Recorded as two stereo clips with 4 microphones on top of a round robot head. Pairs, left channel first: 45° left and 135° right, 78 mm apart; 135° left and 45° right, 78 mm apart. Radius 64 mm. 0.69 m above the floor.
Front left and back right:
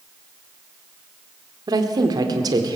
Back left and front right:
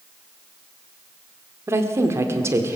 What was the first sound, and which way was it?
A woman speaking, 100° right.